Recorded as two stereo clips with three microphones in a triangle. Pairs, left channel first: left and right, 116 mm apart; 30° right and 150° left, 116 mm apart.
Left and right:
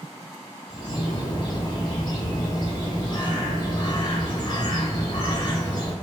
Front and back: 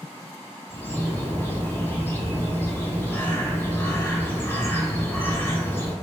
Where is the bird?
45° left, 1.6 m.